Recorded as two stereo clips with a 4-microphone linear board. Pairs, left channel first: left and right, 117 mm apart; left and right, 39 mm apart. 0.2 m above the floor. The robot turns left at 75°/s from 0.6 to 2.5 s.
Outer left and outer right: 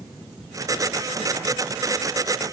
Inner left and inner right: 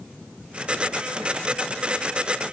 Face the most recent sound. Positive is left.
No sound to turn to.